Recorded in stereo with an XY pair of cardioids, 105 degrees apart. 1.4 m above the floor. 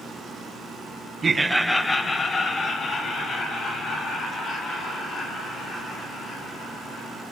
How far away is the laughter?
About 0.6 m.